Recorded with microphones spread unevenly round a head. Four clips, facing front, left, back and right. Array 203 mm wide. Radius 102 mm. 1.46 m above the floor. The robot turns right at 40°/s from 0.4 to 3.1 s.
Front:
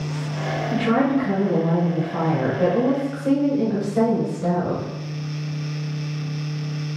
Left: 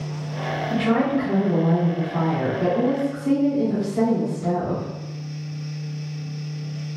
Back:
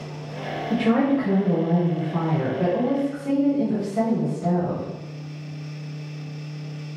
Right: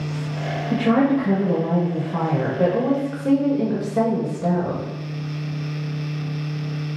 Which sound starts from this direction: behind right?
A woman speaking, at 0.7 s.